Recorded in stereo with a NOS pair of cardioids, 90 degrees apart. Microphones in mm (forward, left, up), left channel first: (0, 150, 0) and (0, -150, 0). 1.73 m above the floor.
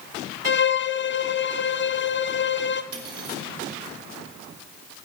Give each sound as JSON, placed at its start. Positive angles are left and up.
{"t": 0.5, "sound": "a violin", "azimuth_deg": 40, "distance_m": 1.0}
{"t": 2.9, "sound": "cutlery clinking", "azimuth_deg": -50, "distance_m": 3.5}